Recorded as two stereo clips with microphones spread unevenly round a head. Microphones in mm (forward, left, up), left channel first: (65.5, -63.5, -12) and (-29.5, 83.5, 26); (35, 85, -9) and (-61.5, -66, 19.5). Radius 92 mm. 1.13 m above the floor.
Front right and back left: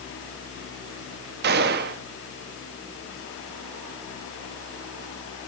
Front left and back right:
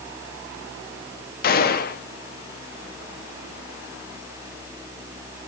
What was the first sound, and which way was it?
A gunshot, 100° left.